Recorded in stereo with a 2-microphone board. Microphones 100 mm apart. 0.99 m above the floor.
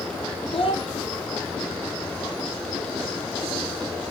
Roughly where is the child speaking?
Left.